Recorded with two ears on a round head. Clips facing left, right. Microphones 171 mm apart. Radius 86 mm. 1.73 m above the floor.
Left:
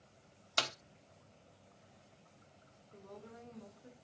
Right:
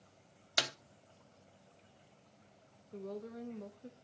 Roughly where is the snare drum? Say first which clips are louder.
Even; centre.